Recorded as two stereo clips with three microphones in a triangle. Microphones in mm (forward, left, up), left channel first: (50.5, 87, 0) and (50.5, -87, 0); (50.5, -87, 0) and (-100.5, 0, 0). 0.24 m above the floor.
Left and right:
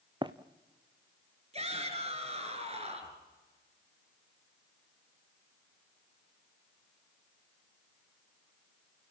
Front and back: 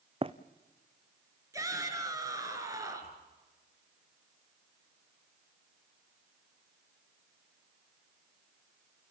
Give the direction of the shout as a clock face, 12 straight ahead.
5 o'clock.